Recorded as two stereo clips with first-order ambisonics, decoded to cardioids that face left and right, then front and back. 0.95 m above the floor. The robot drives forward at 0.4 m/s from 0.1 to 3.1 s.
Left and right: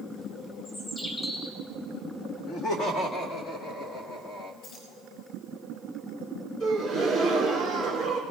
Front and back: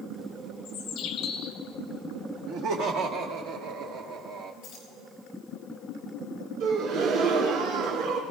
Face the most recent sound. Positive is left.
turn(degrees=160)